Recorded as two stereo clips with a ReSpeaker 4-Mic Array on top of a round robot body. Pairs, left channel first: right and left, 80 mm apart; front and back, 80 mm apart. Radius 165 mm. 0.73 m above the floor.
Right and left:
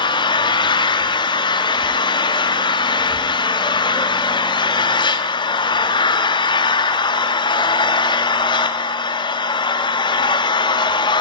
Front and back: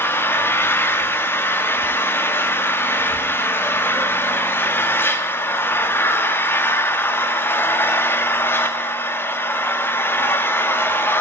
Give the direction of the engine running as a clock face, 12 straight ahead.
2 o'clock.